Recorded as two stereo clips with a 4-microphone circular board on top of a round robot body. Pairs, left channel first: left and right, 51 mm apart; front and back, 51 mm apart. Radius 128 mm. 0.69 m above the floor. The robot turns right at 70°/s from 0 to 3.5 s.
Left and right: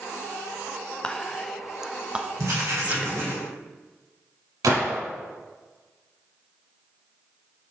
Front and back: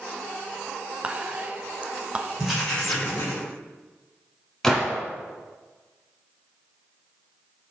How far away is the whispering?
About 0.7 m.